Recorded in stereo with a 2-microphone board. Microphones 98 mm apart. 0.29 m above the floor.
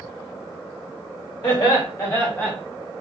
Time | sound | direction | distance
1.4 | laughter | 45° left (ahead or behind) | 1.7 m